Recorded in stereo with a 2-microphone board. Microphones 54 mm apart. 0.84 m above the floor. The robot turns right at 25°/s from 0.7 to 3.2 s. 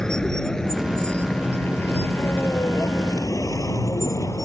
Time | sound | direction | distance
0.0 | a vehicle | 10° left (ahead or behind) | ?